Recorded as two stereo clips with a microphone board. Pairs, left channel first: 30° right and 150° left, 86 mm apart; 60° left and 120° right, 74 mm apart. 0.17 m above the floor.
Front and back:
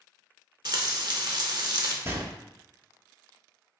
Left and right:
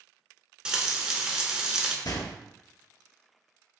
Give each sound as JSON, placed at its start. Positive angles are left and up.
{"t": 0.7, "sound": "frying", "azimuth_deg": 165, "distance_m": 0.6}
{"t": 2.0, "sound": "a gunshot", "azimuth_deg": 90, "distance_m": 0.6}